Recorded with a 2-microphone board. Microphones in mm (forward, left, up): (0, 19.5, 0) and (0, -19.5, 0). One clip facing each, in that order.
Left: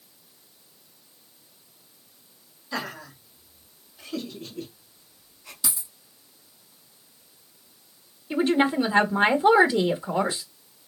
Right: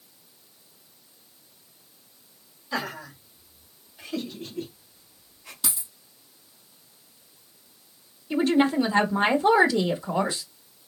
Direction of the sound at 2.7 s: 15° right (ahead or behind).